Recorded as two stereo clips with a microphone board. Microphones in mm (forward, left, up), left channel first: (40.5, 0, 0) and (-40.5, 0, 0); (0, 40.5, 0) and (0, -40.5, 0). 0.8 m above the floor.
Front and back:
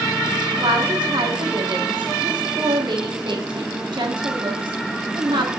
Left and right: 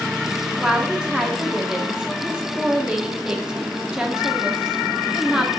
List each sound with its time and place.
0.6 s a woman speaking: 170° right, 1.3 m